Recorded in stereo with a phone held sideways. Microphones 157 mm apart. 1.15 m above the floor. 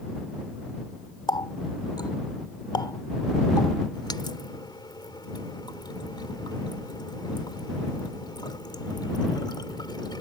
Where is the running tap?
30° left (ahead or behind).